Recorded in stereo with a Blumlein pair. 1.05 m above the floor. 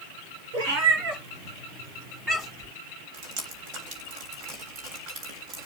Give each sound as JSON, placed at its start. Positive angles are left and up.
{"t": 0.5, "sound": "a cat meowing", "azimuth_deg": -50, "distance_m": 3.0}
{"t": 3.1, "sound": "dripping", "azimuth_deg": -35, "distance_m": 3.0}